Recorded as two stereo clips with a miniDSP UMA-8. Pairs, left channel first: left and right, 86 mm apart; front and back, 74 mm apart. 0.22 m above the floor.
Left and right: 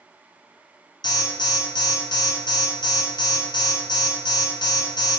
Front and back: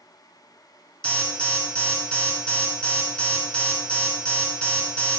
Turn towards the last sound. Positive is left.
turn(degrees=70)